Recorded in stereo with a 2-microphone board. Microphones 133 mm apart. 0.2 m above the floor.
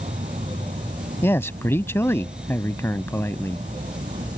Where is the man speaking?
20° left (ahead or behind).